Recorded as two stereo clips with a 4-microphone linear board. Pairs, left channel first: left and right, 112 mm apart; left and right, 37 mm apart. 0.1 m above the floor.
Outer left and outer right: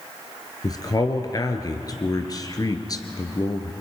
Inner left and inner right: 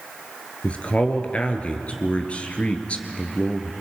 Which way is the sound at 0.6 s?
35° left (ahead or behind).